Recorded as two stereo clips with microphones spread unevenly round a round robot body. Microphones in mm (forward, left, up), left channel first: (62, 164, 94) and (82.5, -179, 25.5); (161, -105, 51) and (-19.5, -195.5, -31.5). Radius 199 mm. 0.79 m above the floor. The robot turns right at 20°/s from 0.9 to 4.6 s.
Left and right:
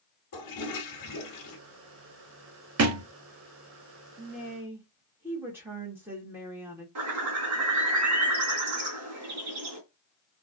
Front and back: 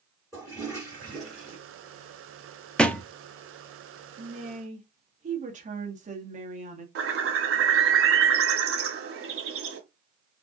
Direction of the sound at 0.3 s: 130° left.